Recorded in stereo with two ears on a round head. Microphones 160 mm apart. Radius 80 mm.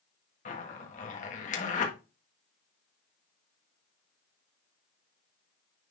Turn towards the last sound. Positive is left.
turn(degrees=40)  # may be behind; listen again after turning